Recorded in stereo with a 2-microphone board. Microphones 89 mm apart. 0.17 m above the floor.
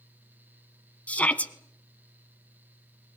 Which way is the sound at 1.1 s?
15° left (ahead or behind).